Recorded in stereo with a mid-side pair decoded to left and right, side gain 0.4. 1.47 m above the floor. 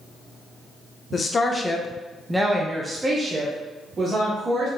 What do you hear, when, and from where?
1.1 s a woman speaking: 45° left, 0.8 m; by 4.7 s 50° right, 1.6 m